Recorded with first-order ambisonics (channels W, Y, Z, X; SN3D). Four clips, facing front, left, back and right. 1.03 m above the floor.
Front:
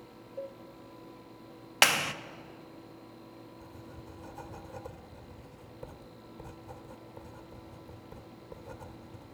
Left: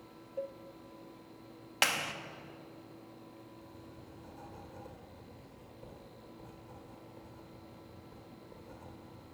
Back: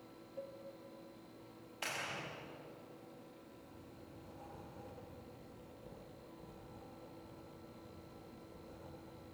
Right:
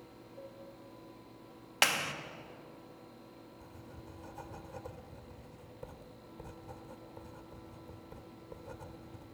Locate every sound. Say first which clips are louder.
0.4 s a cowbell: left 10 dB, front 8 dB; 60° left, 0.6 m
1.8 s a clap: right 1 dB, front 17 dB; 5° right, 1.0 m
3.6 s writing: even, front 7 dB; 25° right, 2 m